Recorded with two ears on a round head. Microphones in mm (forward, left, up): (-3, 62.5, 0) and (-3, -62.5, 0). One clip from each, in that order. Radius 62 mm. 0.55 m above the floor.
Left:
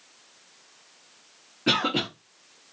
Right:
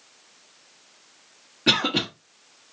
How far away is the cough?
About 1.1 m.